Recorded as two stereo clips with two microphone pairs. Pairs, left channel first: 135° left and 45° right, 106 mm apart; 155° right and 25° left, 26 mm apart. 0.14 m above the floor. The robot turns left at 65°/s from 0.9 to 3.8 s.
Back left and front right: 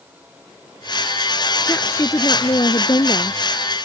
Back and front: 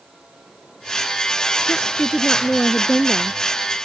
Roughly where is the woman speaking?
Behind right.